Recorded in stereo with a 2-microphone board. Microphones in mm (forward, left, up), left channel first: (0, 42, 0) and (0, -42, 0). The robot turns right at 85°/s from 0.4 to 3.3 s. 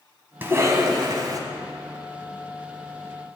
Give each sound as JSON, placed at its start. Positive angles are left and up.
{"t": 0.4, "sound": "a cough", "azimuth_deg": -145, "distance_m": 1.5}